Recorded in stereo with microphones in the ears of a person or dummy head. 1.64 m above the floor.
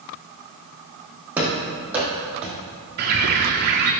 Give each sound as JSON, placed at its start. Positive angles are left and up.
{"t": 1.4, "sound": "running footsteps", "side_deg": -10, "distance_m": 4.0}
{"t": 3.0, "sound": "a bird", "side_deg": -50, "distance_m": 1.3}